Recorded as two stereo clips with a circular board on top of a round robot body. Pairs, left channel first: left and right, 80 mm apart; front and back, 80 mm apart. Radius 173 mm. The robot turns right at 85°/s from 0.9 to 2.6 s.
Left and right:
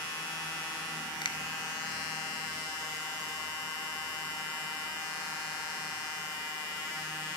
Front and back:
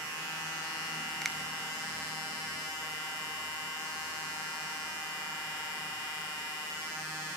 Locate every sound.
1.2 s a finger snap: 85° left, 2.5 m; by 1.4 s 100° left, 2.5 m